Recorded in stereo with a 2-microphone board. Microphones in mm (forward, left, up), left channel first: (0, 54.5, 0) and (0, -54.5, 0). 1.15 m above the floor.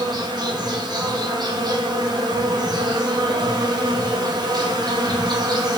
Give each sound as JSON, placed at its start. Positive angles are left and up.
{"t": 0.0, "sound": "an insect", "side_deg": -40, "distance_m": 0.8}